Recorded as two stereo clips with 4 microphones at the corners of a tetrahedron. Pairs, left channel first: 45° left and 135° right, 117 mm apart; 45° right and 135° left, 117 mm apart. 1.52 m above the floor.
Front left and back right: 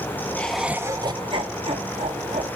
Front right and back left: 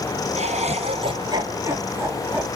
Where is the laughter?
120° left, 1.0 m; by 2.5 s 150° right, 2.5 m.